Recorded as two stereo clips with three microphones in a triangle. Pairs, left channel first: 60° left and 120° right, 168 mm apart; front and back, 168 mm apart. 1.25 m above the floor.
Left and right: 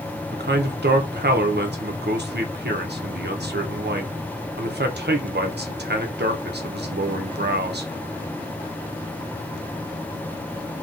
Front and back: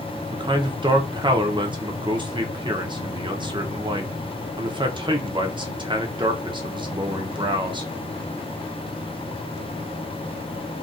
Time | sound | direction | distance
0.3 | a man speaking | 120° right | 0.7 m